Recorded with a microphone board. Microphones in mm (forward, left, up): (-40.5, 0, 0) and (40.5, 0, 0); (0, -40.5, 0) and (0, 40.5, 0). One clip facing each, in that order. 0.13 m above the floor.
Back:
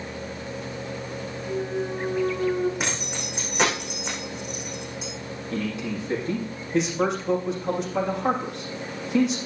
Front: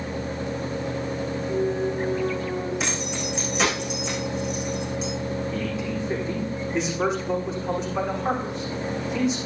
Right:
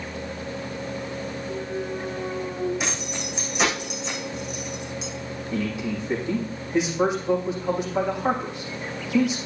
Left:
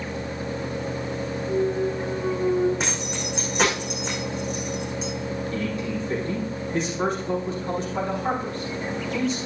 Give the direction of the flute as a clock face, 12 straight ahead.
No flute in this recording.